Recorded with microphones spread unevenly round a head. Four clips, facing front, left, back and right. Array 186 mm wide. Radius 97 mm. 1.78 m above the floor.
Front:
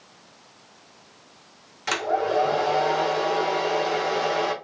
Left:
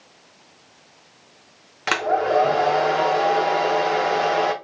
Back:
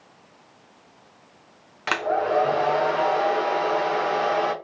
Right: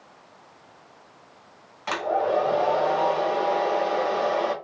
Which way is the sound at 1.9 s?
90° left.